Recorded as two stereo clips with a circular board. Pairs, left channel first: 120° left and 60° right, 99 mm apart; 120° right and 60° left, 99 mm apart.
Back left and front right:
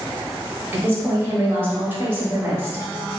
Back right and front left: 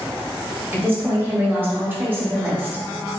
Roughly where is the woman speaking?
Ahead.